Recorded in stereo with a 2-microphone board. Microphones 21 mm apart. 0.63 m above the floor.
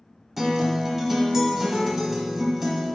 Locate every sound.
0.4 s a guitar: 20° right (ahead or behind), 0.9 m